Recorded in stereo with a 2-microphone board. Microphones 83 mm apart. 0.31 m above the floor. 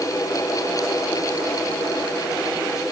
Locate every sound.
Only background noise.